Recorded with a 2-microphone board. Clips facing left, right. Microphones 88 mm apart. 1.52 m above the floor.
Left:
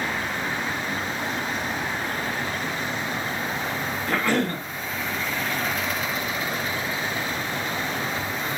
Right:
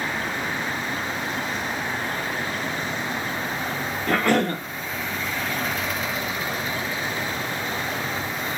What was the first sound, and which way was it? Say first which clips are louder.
A cough: right 3 dB; 60° right (ahead or behind).